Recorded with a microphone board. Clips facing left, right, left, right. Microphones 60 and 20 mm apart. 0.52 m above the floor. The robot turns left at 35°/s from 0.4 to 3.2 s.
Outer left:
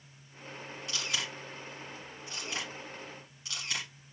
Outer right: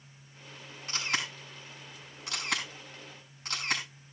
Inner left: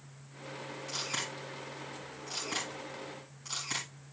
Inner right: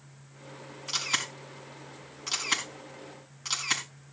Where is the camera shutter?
45° right (ahead or behind), 4.5 m; by 3.8 s 50° right (ahead or behind), 4.5 m.